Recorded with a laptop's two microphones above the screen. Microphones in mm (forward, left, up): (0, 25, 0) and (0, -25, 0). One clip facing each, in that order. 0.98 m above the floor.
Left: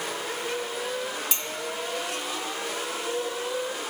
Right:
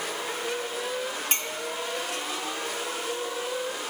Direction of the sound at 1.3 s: 45° right (ahead or behind).